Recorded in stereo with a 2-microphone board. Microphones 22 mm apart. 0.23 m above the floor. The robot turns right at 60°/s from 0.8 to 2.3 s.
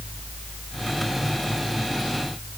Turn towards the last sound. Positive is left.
No sound to turn to.